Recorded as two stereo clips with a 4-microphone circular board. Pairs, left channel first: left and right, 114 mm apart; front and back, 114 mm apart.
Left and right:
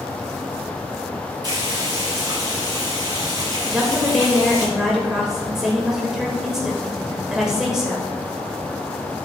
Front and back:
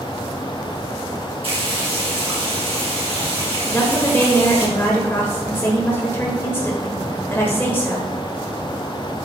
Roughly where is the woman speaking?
Ahead.